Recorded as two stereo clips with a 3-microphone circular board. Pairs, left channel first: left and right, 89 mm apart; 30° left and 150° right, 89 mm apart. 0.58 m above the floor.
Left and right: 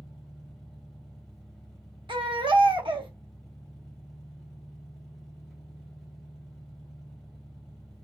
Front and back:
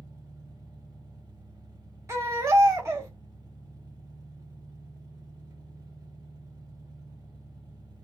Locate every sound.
0.0 s an engine running: 175° right, 1.9 m
2.1 s a baby crying: 95° right, 1.2 m